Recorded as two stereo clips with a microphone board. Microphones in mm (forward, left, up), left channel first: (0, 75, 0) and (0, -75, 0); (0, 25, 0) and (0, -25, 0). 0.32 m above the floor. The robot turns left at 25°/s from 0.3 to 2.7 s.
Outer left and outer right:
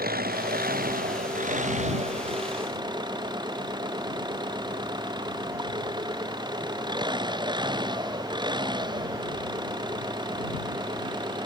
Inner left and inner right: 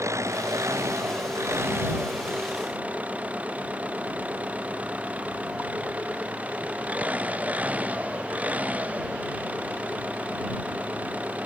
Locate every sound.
0.0 s an engine running: 90° right; by 11.5 s 150° right